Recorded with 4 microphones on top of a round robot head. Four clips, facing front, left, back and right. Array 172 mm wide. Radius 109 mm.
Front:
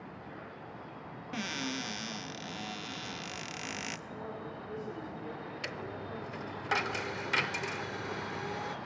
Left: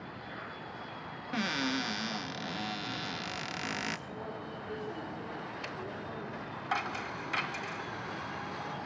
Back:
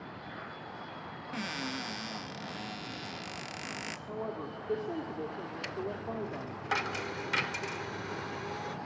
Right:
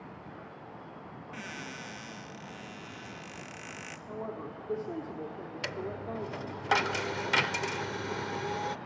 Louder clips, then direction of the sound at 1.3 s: Left 11 dB, front 1 dB; 75° left.